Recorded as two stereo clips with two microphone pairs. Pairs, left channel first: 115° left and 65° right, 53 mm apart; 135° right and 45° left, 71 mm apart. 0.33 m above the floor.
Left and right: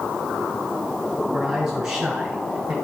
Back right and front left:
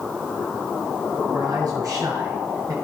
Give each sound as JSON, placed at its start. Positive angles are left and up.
{"t": 1.3, "sound": "a man speaking", "azimuth_deg": 15, "distance_m": 4.5}